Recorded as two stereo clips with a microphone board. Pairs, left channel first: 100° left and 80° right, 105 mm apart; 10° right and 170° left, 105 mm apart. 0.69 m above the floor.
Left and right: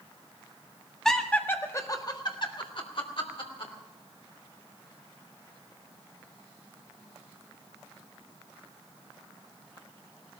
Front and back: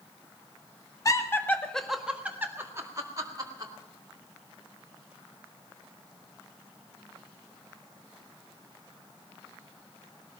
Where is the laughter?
15° left, 1.4 m; by 3.7 s 125° left, 2.5 m.